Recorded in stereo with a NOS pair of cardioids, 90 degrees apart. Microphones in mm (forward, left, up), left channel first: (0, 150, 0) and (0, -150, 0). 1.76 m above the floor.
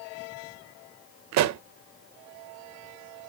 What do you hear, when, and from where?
1.3 s a pop: 65° right, 0.5 m